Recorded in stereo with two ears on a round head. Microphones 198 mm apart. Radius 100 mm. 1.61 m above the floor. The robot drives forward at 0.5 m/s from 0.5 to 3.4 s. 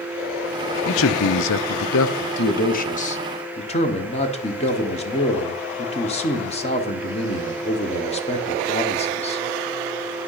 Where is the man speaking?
55° left (ahead or behind), 0.6 m; by 9.4 s 30° left (ahead or behind), 1.1 m.